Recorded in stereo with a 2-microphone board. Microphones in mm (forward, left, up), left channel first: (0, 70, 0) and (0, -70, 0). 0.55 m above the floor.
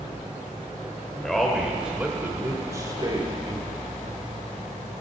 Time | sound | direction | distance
1.2 | a man speaking | 5° left (ahead or behind) | 2.0 m